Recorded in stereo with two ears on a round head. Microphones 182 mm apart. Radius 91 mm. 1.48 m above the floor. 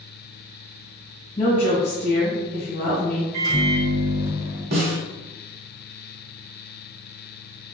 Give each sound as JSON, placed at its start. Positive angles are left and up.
{"t": 1.4, "sound": "a woman speaking", "side_deg": 40, "distance_m": 1.4}
{"t": 3.3, "sound": "a microwave", "side_deg": -45, "distance_m": 1.3}
{"t": 4.7, "sound": "a snare drum", "side_deg": -45, "distance_m": 1.0}